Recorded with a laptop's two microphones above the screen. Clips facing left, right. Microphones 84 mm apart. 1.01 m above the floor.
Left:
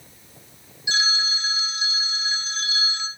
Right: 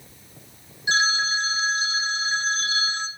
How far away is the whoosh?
No whoosh in this recording.